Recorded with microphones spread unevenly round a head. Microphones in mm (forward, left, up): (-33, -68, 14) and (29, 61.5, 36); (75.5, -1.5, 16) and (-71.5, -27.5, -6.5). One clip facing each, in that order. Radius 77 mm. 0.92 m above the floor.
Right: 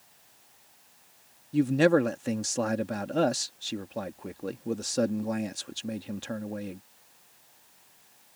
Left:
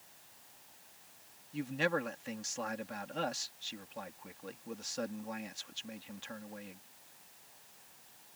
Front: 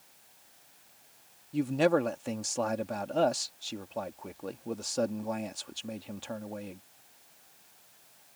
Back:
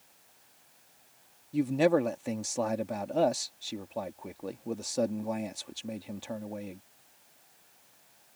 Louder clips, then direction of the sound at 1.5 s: Right 13 dB, back 1 dB; 85° right.